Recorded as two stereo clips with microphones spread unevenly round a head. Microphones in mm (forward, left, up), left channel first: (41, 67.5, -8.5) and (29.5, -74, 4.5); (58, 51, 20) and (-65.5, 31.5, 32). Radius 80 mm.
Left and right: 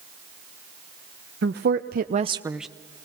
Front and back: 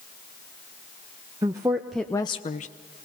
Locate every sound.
1.4 s a woman speaking: 105° right, 1.1 m; by 2.7 s 5° right, 0.8 m